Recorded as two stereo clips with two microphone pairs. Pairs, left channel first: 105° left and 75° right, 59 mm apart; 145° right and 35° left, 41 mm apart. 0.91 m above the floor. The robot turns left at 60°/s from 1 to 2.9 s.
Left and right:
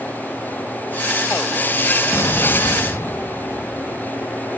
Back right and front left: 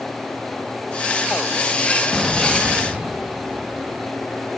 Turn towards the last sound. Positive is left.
turn(degrees=85)